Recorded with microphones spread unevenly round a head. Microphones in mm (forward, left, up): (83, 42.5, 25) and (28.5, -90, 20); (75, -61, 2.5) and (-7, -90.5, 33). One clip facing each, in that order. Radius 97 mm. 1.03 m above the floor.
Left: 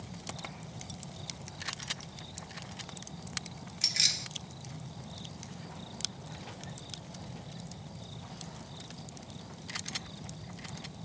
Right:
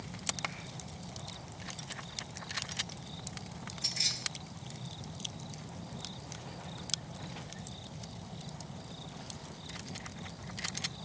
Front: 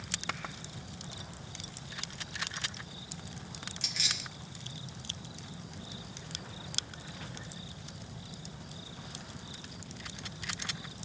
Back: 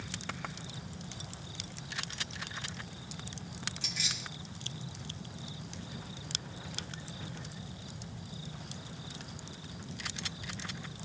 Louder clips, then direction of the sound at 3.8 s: Even, even; 65° left.